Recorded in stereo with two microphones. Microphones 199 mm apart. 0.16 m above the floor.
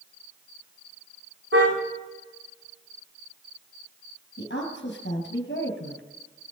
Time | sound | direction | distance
1.5 | a car horn | 80° right | 8.5 m
4.4 | a woman speaking | 65° left (ahead or behind) | 3 m